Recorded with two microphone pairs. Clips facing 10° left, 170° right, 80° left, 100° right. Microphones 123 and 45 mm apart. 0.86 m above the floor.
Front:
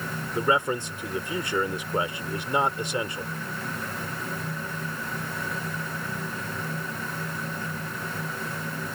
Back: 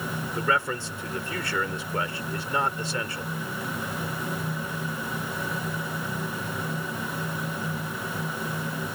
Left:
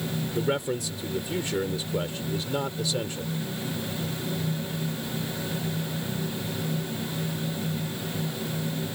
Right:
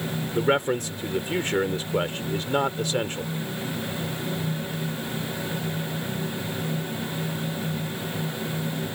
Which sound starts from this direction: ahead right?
A man speaking, at 0.3 s.